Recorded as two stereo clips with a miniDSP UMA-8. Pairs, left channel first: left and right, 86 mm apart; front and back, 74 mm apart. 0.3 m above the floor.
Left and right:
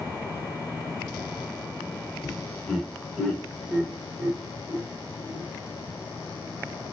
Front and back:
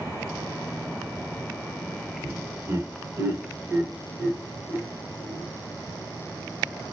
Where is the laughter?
160° left, 1.5 m; by 5.4 s 95° right, 1.6 m.